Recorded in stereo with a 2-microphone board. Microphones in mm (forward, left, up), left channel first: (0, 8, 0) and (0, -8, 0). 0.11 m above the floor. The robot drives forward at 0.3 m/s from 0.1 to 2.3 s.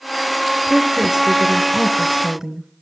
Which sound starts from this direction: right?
A woman speaking, at 0.7 s.